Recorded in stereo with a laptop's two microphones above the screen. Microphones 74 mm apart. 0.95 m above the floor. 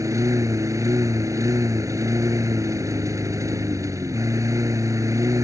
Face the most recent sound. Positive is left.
turn(degrees=-45)  # may be behind; listen again after turning